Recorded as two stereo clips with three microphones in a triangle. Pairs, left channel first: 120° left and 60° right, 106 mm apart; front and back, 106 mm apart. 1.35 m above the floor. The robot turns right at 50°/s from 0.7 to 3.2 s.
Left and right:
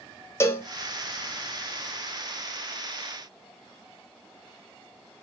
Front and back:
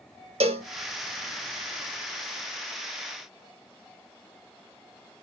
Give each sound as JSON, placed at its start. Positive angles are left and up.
{"t": 0.4, "sound": "a cowbell", "azimuth_deg": -175, "distance_m": 0.7}